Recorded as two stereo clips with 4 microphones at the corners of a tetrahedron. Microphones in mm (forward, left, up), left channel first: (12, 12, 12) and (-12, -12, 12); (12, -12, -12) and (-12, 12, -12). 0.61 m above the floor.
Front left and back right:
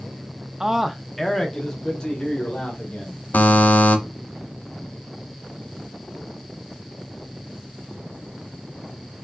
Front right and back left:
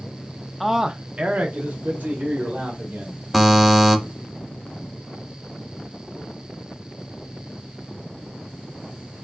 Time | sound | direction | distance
0.6 | a man speaking | 140° right | 0.5 m
3.3 | a buzzer | 50° left | 0.7 m